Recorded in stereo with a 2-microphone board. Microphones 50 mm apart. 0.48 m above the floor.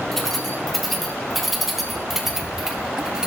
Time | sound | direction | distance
0.1 | keys jangling | 5° left (ahead or behind) | 4 m